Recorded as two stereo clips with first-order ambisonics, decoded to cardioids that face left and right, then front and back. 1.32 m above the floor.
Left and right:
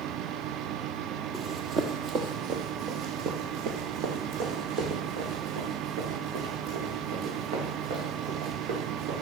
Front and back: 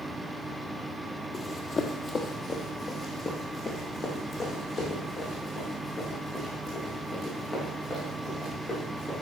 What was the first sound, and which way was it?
Running footsteps, 35° right.